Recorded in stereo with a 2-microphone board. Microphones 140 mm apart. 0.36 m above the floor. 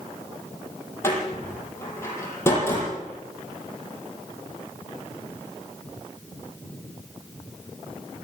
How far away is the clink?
I don't hear a clink.